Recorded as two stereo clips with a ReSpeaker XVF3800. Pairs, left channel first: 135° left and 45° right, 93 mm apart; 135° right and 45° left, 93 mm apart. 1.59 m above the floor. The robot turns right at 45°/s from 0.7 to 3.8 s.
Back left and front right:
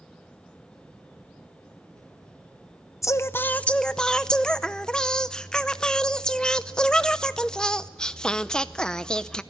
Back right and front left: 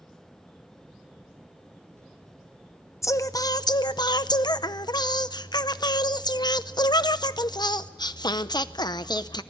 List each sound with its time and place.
3.0 s singing: straight behind, 0.7 m; by 9.4 s 145° right, 0.7 m